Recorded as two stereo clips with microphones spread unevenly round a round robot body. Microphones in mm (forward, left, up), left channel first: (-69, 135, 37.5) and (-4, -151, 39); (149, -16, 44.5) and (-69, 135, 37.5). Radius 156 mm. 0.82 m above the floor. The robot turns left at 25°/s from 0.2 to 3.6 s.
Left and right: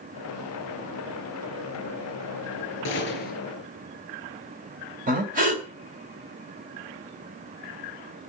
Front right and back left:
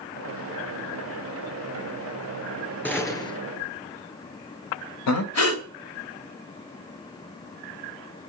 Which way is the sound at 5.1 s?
10° right.